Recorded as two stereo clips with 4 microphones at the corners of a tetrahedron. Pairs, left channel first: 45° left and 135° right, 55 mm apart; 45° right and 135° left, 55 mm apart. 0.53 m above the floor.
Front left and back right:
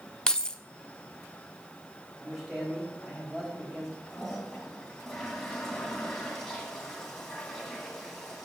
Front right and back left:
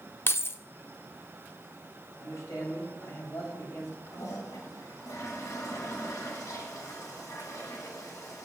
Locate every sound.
0.3 s keys jangling: 25° right, 0.5 m
2.2 s a man speaking: 55° right, 3.5 m
4.1 s a toilet flushing: 35° right, 2.5 m